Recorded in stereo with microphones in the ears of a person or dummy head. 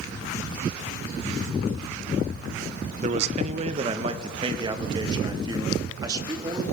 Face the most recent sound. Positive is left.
turn(degrees=-20)  # may be behind; listen again after turning